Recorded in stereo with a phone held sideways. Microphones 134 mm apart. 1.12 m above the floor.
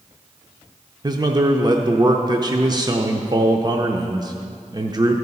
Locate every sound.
1.0 s a man speaking: 30° right (ahead or behind), 0.5 m